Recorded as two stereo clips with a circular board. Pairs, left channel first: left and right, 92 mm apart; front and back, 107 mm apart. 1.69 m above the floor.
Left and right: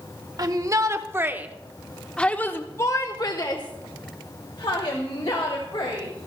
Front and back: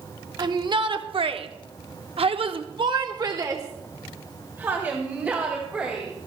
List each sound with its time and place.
0.4 s a shout: 135° right, 1.3 m; by 6.1 s 105° left, 2.5 m